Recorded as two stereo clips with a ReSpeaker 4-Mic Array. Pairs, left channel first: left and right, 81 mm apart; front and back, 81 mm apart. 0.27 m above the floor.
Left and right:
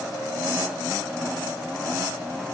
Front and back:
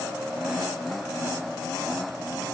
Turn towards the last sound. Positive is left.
No sound to turn to.